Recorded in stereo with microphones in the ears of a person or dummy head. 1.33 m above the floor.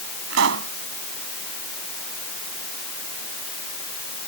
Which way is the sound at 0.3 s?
75° right (ahead or behind).